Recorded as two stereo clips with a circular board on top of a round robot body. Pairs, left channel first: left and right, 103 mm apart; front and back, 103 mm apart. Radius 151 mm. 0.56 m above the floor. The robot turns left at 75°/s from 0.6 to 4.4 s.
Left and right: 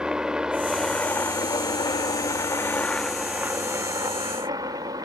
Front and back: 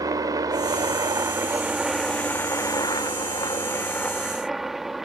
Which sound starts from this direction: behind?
A helicopter, at 0.0 s.